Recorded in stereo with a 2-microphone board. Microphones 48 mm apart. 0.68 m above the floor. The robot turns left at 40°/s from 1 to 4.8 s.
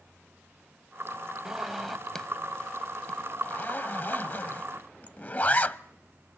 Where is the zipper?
10° right (ahead or behind), 0.6 m; by 5.8 s 40° left (ahead or behind), 0.6 m.